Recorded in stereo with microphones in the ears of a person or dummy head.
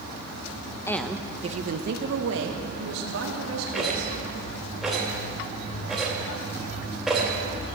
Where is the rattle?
Centre (ahead or behind), 3 m.